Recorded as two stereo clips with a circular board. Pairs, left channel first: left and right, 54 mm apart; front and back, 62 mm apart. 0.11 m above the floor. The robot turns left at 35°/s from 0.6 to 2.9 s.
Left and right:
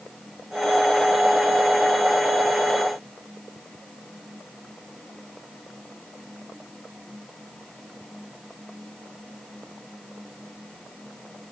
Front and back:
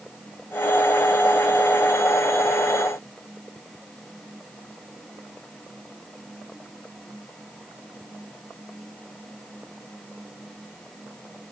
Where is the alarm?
No alarm in this recording.